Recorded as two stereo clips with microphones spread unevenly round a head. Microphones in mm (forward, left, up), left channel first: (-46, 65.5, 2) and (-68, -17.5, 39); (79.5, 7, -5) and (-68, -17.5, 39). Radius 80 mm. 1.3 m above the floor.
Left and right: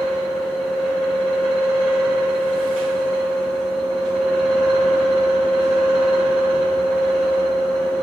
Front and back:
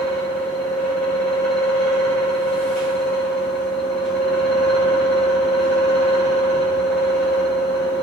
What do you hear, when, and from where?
0.0 s a fan: 50° left, 1.8 m